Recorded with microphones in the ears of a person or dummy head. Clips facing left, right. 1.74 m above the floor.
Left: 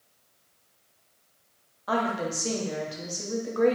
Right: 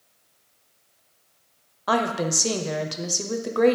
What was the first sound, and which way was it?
A woman speaking, 85° right.